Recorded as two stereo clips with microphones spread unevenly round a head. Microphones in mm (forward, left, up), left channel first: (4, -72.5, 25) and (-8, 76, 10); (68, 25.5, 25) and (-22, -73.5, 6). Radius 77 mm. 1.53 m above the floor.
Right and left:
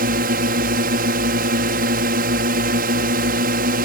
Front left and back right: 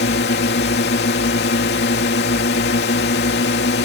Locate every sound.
0.0 s a drone: 65° left